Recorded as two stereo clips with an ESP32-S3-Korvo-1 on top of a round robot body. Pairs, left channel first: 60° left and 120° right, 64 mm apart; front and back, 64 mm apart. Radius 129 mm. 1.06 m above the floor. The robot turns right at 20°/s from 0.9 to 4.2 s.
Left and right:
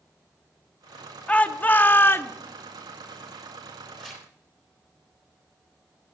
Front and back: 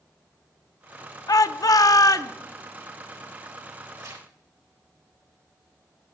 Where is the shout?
5° right, 0.9 m; by 2.3 s 15° left, 0.9 m.